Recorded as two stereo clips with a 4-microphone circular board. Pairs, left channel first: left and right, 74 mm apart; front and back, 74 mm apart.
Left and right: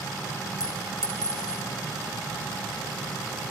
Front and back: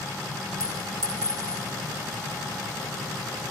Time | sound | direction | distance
0.6 | a clink | 130° left | 4 m